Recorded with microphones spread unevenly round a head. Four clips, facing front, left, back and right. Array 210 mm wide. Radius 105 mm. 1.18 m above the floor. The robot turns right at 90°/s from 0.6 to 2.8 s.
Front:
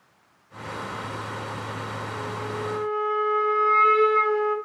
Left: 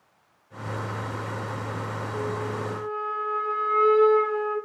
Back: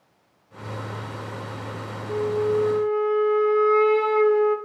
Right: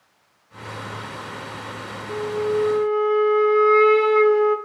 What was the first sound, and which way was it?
A flute, 155° right.